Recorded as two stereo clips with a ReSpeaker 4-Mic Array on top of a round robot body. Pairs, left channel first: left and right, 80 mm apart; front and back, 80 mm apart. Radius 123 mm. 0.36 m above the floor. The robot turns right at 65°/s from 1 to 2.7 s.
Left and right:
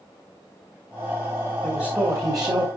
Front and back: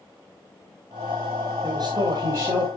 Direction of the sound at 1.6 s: Straight behind.